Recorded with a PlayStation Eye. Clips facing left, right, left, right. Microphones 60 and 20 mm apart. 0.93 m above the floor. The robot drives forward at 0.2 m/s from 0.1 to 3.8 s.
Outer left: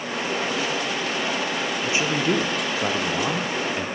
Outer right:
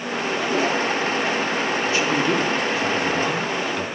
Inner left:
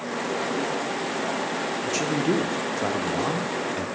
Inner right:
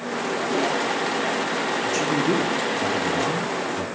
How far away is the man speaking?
About 0.5 m.